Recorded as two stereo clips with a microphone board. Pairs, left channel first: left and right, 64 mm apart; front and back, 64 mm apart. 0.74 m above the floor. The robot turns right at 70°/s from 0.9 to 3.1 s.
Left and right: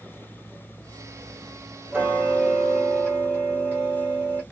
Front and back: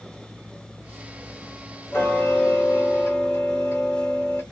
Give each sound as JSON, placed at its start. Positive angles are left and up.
{"t": 1.9, "sound": "ticking", "azimuth_deg": -50, "distance_m": 1.2}